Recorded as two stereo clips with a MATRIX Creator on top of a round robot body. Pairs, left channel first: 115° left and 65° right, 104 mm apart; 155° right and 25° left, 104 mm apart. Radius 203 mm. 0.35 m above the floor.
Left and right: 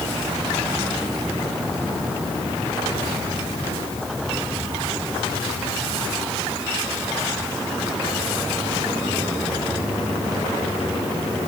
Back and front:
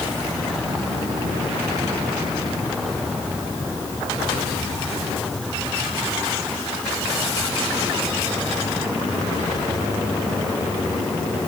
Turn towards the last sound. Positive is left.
No sound to turn to.